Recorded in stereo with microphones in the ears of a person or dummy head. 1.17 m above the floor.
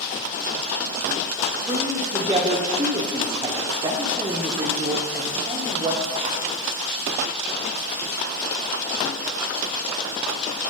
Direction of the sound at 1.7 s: 25° right (ahead or behind).